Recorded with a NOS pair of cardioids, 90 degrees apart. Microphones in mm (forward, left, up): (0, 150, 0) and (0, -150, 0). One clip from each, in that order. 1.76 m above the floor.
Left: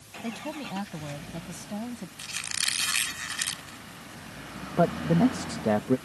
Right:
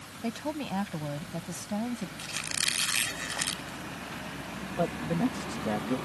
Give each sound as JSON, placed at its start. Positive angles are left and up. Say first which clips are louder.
{"t": 0.2, "sound": "a woman speaking", "louder": "right 2 dB", "azimuth_deg": -15}
{"t": 2.2, "sound": "a squeak", "louder": "left 1 dB", "azimuth_deg": 15}
{"t": 4.8, "sound": "a man speaking", "louder": "left 6 dB", "azimuth_deg": 50}